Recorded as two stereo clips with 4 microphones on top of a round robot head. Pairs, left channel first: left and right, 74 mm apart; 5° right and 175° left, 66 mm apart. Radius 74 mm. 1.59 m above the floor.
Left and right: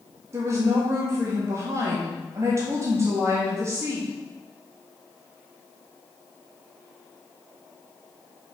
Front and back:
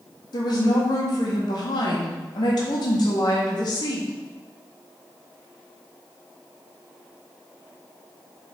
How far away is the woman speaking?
About 1.5 m.